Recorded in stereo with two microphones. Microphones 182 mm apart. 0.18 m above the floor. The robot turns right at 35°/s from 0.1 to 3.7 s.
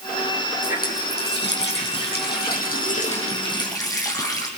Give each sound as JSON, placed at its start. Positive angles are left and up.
{"t": 0.6, "sound": "a running tap", "azimuth_deg": 50, "distance_m": 5.5}